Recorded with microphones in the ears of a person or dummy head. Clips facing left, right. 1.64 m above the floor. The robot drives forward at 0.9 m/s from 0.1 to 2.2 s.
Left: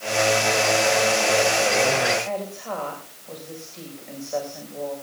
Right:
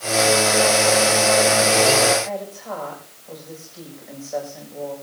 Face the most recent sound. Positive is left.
turn(degrees=0)  # may be behind; listen again after turning